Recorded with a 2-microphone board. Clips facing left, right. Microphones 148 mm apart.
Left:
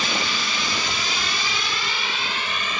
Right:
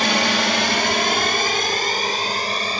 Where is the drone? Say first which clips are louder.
Right 8 dB; 65° right (ahead or behind); by 2.8 s 35° right (ahead or behind).